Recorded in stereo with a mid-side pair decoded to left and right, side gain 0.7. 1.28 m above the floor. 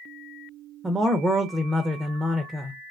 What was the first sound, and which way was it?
A man speaking, 20° right.